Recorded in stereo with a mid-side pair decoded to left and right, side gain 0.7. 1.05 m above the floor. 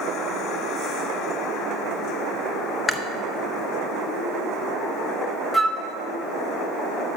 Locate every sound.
2.9 s chewing: 15° left, 0.9 m
5.5 s a flute: straight ahead, 0.9 m